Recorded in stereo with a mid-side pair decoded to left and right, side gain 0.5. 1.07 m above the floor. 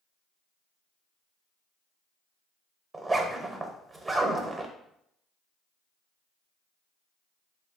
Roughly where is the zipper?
Ahead.